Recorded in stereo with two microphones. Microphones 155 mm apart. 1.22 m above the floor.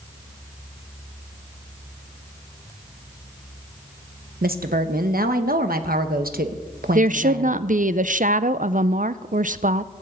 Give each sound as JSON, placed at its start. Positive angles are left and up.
{"t": 4.4, "sound": "a woman speaking", "side_deg": -85, "distance_m": 1.0}
{"t": 7.0, "sound": "a woman speaking", "side_deg": -65, "distance_m": 0.5}